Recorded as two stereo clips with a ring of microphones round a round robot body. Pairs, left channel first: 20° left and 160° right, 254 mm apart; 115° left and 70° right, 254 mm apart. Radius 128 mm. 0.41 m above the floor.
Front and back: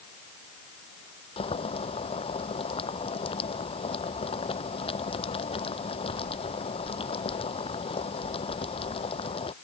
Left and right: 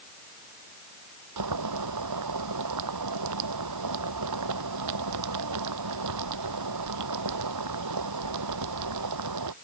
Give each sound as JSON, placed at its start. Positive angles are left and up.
{"t": 1.4, "sound": "boiling", "azimuth_deg": -45}